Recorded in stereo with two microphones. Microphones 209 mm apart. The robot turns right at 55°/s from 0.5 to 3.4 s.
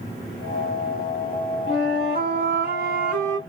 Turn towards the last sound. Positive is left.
turn(degrees=-45)